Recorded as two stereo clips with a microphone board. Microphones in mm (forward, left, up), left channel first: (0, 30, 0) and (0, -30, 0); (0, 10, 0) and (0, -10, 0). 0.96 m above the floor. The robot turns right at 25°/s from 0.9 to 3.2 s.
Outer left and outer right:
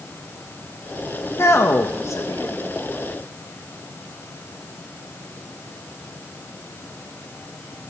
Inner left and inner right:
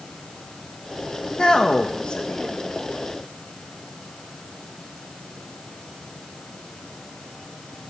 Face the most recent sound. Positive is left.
turn(degrees=100)